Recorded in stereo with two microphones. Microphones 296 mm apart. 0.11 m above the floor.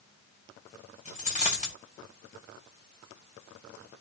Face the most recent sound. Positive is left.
turn(degrees=20)  # may be behind; listen again after turning